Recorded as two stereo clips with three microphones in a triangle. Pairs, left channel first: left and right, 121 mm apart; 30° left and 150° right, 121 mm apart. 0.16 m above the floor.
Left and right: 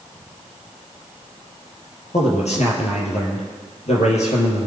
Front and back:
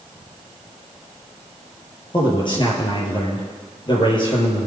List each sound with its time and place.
2.1 s a man speaking: 75° left, 4.5 m